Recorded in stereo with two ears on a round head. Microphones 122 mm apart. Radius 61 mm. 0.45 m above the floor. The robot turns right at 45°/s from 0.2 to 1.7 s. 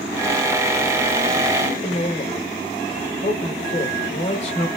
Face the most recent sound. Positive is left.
turn(degrees=50)  # may be behind; listen again after turning